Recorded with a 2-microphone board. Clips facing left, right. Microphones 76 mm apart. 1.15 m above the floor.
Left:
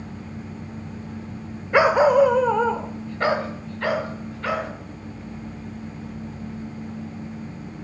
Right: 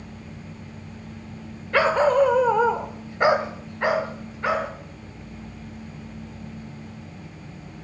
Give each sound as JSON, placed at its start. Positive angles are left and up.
{"t": 1.7, "sound": "a dog barking", "side_deg": 15, "distance_m": 1.1}